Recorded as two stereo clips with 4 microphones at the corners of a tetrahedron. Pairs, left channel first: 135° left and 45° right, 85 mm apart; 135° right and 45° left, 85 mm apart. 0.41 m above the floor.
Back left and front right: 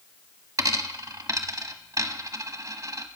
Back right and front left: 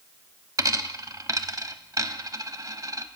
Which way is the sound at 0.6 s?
Straight ahead.